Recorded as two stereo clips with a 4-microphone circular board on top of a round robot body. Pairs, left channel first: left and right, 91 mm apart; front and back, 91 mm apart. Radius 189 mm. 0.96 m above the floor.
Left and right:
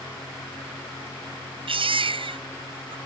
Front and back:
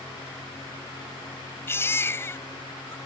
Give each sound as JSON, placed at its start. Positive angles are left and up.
{"t": 1.7, "sound": "a baby crying", "azimuth_deg": -65}